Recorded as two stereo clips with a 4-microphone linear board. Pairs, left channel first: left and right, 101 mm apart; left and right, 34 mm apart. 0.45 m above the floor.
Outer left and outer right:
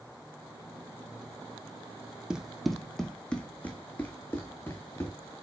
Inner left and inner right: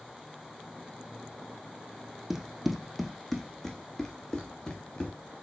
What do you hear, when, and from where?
2.3 s running footsteps: 10° right (ahead or behind), 1.1 m; by 5.3 s 25° left (ahead or behind), 2.5 m